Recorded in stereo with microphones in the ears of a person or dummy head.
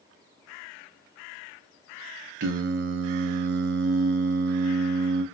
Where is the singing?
55° right (ahead or behind), 0.5 m.